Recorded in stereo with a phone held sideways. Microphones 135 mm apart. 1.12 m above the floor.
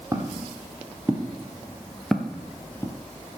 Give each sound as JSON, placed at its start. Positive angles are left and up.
{"t": 0.1, "sound": "footsteps", "side_deg": -20, "distance_m": 2.0}